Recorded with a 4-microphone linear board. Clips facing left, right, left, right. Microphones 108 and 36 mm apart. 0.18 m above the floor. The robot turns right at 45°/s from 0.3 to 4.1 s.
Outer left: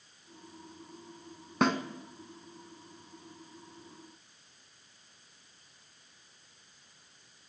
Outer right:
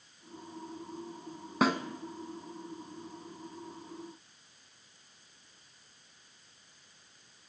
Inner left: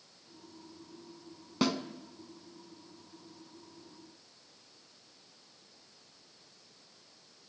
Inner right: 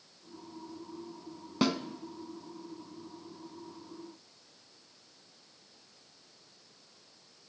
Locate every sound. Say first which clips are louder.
1.6 s a snare drum: even, inner right 1 dB; 5° right (ahead or behind), 0.6 m; by 1.8 s 10° right (ahead or behind), 0.6 m